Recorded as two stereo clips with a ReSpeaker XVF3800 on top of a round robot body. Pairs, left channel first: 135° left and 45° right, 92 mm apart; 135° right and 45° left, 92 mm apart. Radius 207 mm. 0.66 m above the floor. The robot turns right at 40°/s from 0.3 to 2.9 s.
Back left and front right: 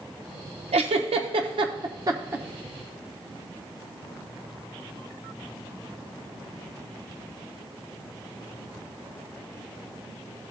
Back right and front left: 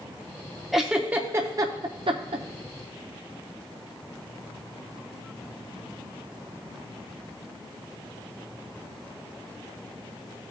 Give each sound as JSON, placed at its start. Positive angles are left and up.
{"t": 0.7, "sound": "a giggle", "azimuth_deg": -45, "distance_m": 0.6}